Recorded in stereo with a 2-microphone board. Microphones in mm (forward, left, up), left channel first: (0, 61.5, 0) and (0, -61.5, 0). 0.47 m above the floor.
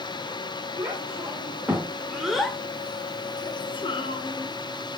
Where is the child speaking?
20° right (ahead or behind), 1.2 m; by 5.0 s 40° left (ahead or behind), 1.1 m.